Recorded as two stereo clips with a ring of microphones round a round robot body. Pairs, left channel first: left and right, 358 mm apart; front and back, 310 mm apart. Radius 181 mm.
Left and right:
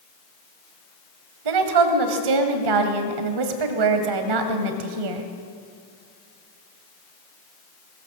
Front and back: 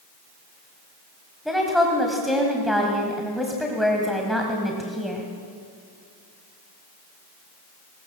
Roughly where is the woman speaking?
Right.